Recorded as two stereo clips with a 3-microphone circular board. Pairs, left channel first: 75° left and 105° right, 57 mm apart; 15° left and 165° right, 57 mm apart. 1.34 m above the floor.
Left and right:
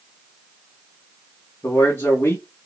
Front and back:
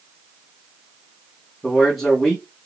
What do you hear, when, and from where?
1.6 s a man speaking: 105° left, 1.1 m